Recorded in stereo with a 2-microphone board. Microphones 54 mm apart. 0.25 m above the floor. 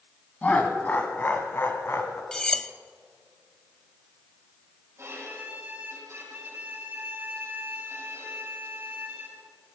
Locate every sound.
0.4 s laughter: 25° left (ahead or behind), 1.8 m; by 2.2 s 50° left (ahead or behind), 2.0 m
2.3 s cutlery clinking: 15° left (ahead or behind), 0.5 m
5.0 s a violin: 55° right (ahead or behind), 6.5 m